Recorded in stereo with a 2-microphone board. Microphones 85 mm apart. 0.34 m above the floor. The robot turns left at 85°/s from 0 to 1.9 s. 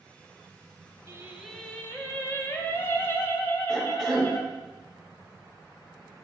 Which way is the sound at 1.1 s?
145° right.